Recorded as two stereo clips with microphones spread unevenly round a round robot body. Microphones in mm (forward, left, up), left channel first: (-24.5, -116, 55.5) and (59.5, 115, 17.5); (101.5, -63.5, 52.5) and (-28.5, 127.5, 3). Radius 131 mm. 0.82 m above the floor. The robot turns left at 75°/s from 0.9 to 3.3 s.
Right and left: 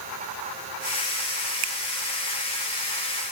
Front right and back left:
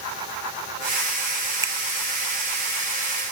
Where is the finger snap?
50° left, 1.2 m; by 1.7 s 45° left, 1.2 m.